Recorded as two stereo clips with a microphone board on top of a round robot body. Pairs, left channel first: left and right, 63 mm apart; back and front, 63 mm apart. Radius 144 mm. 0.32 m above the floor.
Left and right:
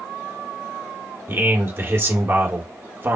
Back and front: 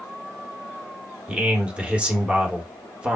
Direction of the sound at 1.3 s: 65° right.